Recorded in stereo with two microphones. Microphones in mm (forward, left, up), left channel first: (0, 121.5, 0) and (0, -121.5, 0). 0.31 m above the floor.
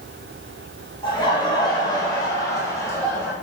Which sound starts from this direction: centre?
Laughter, at 1.0 s.